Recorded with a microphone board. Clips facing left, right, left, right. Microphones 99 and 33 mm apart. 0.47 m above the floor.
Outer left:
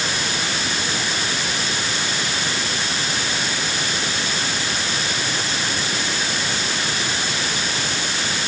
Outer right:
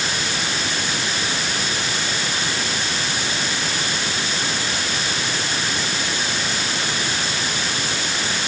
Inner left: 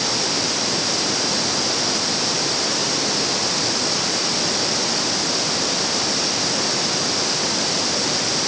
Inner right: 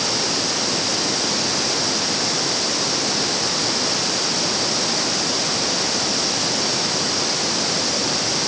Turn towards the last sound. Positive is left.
No sound to turn to.